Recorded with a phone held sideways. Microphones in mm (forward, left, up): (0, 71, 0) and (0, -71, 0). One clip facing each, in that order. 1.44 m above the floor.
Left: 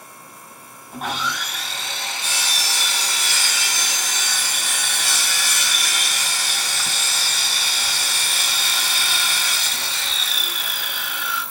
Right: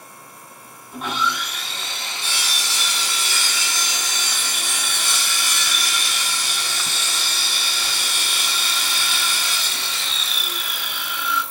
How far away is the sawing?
About 3 m.